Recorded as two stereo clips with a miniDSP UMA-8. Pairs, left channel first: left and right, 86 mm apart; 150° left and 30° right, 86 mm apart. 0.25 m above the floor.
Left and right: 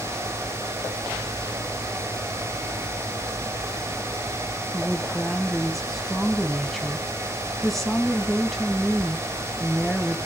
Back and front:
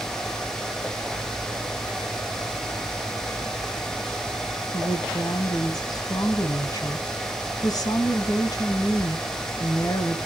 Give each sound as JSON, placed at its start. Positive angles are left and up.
{"t": 4.7, "sound": "a woman speaking", "azimuth_deg": 180, "distance_m": 1.6}